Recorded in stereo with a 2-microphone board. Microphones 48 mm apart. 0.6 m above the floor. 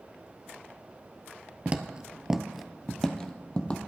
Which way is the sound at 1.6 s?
30° right (ahead or behind).